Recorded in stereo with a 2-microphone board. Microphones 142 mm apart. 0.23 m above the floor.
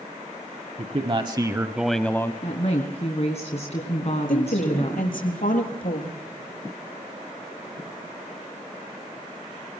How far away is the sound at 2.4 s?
About 2.5 m.